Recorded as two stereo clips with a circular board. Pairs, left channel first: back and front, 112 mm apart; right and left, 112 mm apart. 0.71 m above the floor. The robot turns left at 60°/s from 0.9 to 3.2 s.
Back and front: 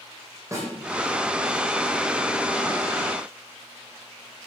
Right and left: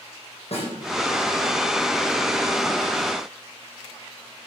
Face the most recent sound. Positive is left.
turn(degrees=160)